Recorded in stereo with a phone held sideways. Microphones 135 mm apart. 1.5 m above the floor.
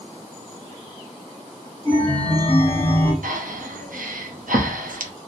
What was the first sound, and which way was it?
A chime, 10° left (ahead or behind).